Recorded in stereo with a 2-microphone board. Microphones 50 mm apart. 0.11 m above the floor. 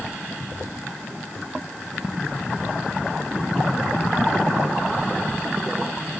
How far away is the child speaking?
No child speaking in this recording.